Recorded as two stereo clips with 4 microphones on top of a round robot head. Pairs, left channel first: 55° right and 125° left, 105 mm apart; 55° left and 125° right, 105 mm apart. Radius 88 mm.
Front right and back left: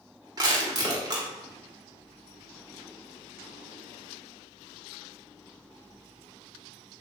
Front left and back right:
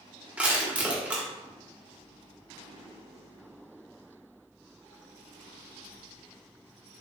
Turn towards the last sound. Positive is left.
turn(degrees=165)